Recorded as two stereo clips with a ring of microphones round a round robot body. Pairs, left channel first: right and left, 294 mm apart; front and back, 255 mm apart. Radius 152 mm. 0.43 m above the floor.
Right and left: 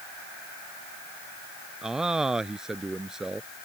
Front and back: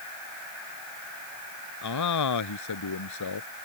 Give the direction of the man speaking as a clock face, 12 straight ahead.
12 o'clock.